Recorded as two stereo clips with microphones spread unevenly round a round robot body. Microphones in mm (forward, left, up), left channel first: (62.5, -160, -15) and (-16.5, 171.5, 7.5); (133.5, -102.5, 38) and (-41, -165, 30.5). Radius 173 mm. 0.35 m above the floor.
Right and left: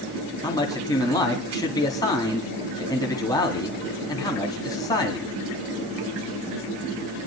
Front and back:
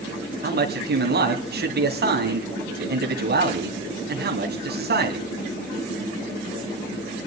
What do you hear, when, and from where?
0.4 s a man speaking: 155° right, 3 m